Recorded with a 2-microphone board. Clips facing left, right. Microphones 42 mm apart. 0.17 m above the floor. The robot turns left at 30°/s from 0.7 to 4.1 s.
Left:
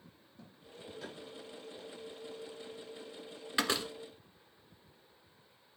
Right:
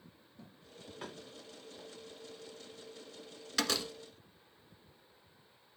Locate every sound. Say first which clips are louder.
1.0 s tapping: right 2 dB; 45° right (ahead or behind), 8 m; by 1.2 s 40° right (ahead or behind), 8 m
3.6 s a door slam: left 2 dB; 20° left (ahead or behind), 1.2 m; by 3.9 s 30° left (ahead or behind), 1.2 m